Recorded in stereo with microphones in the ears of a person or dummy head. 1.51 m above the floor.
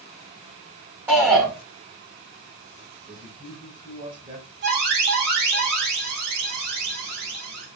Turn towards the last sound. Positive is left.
turn(degrees=-50)  # may be behind; listen again after turning